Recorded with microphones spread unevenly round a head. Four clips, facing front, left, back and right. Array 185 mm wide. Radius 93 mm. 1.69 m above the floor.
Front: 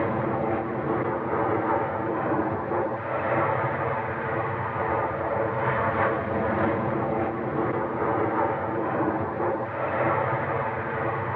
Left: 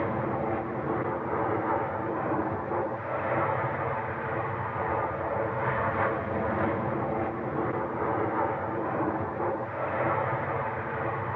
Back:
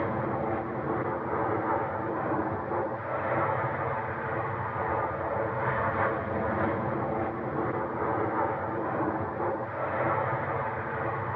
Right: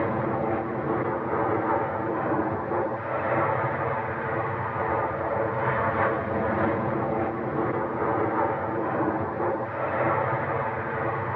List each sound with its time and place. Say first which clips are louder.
0.0 s an aircraft: right 3 dB, front 4 dB; 40° right